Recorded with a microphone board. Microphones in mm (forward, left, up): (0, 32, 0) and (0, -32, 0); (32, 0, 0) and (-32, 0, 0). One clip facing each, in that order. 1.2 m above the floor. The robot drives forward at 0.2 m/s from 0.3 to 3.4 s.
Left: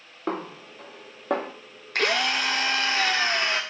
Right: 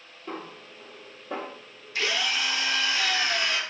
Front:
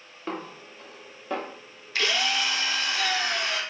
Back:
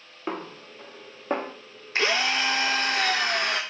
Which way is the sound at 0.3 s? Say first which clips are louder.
Left 7 dB, back 1 dB; 105° left.